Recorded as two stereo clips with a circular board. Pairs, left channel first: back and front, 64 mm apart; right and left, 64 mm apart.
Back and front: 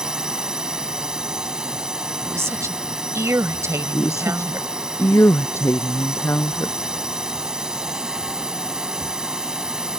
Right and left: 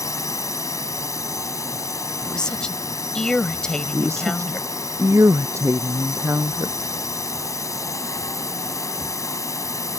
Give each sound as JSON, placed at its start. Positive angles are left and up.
{"t": 0.0, "sound": "a drone", "azimuth_deg": -80}
{"t": 2.2, "sound": "a woman speaking", "azimuth_deg": -15}
{"t": 3.9, "sound": "a woman speaking", "azimuth_deg": 135}